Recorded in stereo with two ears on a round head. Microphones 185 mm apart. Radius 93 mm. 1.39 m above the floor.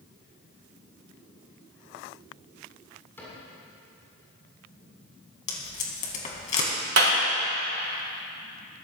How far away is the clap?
About 4 m.